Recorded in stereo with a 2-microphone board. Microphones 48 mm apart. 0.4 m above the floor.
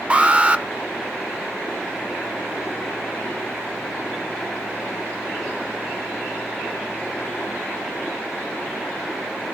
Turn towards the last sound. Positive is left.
turn(degrees=-25)  # may be behind; listen again after turning